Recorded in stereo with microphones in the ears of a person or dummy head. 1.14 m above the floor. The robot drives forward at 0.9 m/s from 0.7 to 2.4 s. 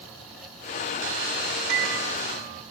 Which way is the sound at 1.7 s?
75° right (ahead or behind).